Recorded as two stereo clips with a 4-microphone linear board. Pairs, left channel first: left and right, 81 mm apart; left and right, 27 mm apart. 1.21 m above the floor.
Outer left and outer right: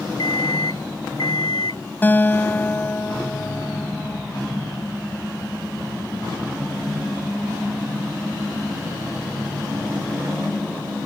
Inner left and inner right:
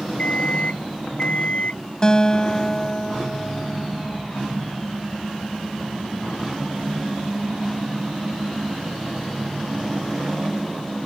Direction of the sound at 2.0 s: 25° left (ahead or behind).